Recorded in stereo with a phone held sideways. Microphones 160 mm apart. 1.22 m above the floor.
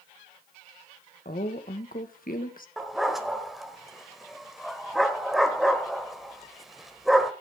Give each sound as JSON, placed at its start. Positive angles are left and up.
{"t": 1.2, "sound": "a woman speaking", "side_deg": 60, "distance_m": 1.2}
{"t": 2.8, "sound": "a dog barking", "side_deg": 0, "distance_m": 1.2}